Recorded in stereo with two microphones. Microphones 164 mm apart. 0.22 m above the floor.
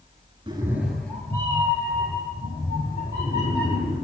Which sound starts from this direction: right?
A cat meowing, at 0.5 s.